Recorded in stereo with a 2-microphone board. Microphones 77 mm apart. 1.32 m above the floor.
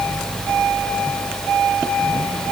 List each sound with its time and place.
Only background noise.